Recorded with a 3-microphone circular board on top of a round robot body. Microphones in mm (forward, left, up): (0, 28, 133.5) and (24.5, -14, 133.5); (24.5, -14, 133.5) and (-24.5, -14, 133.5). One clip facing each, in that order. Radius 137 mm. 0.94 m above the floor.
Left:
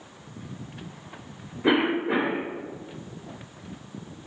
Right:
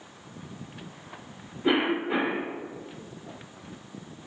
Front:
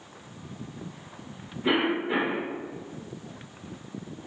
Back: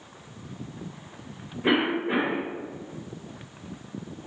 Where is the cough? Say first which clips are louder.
Left 2 dB, back 1 dB; 125° left, 1.2 m.